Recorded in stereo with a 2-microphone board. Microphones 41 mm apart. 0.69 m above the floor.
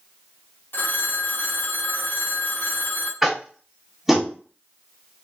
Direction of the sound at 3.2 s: 5° right (ahead or behind).